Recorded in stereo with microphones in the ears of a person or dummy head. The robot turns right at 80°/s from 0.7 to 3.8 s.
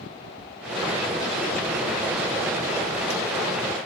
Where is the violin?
I don't hear a violin.